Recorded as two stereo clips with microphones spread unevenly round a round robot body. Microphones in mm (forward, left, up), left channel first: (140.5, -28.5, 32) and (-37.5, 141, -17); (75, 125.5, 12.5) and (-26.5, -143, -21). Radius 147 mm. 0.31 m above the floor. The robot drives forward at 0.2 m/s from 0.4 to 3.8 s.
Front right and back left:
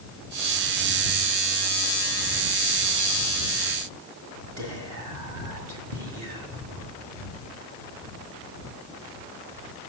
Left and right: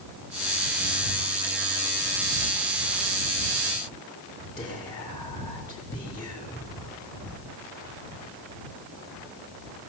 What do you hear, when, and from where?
4.6 s whispering: 145° left, 4 m